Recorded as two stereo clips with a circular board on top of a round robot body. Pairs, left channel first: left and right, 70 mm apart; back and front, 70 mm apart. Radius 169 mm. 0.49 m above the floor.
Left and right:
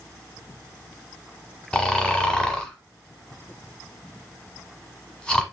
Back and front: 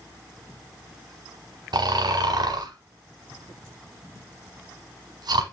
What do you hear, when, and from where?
1.7 s snoring: 10° left, 1.1 m